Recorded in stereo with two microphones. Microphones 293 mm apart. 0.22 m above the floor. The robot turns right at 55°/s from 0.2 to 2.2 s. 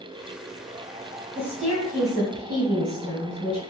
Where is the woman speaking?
15° right, 1.5 m; by 3.6 s 30° left, 1.5 m.